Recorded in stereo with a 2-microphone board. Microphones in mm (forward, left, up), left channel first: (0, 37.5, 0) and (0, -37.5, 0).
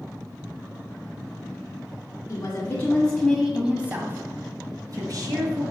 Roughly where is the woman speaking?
Left.